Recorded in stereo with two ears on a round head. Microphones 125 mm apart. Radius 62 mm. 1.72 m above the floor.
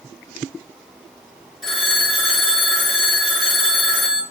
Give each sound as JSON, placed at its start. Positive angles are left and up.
{"t": 1.6, "sound": "a phone ringing", "side_deg": 0, "distance_m": 3.0}